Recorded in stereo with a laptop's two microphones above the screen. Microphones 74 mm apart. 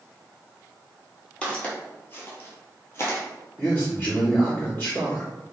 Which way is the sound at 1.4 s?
15° left (ahead or behind).